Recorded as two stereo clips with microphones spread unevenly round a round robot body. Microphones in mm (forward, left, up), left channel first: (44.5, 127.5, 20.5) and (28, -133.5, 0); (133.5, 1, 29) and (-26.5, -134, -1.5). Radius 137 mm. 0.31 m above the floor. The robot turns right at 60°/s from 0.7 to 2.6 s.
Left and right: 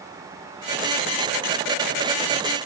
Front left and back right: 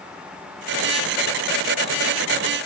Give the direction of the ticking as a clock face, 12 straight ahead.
I don't hear ticking.